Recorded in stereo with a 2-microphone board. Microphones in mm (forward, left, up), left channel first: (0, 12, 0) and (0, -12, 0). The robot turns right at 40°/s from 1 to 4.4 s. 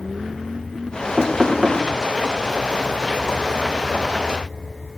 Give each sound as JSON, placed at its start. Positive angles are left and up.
{"t": 1.2, "sound": "knocking", "side_deg": -5, "distance_m": 2.5}